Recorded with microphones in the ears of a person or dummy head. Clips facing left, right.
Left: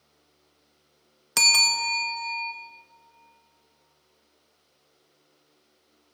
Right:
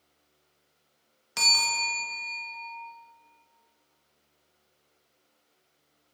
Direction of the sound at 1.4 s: 60° left (ahead or behind).